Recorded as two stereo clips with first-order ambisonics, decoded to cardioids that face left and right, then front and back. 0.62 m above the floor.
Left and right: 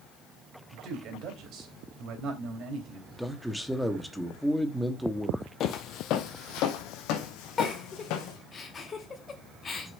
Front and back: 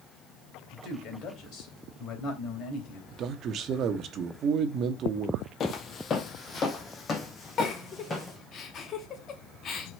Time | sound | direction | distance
0.7 | a man speaking | 50° right | 3 m
3.1 | a man speaking | straight behind | 1.0 m
5.6 | footsteps | 50° left | 0.9 m
7.6 | a giggle | 35° left | 1.2 m